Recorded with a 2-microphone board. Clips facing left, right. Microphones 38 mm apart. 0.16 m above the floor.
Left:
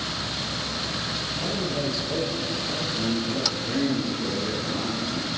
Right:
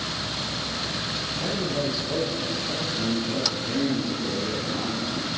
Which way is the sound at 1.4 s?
25° right (ahead or behind).